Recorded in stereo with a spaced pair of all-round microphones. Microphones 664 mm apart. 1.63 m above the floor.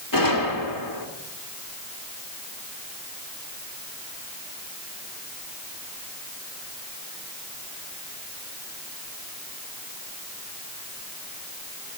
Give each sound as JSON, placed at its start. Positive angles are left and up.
{"t": 0.1, "sound": "a gunshot", "side_deg": 30, "distance_m": 1.8}